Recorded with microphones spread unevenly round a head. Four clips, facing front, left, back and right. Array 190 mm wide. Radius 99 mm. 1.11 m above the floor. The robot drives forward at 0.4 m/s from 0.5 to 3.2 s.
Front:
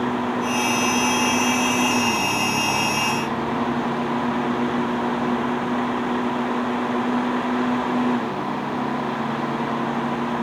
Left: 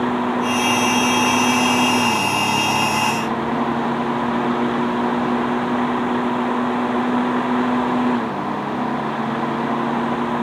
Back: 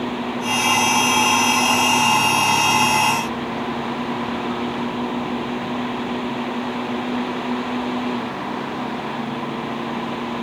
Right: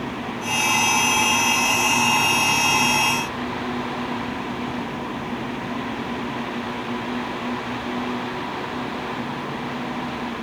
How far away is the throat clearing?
I don't hear throat clearing.